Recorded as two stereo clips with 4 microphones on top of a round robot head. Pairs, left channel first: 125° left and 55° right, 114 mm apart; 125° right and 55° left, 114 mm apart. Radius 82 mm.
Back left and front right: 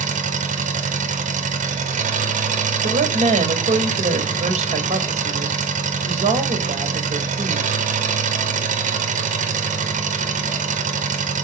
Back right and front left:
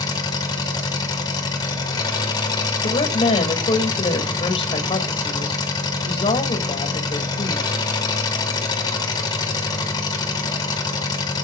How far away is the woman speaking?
About 3.5 m.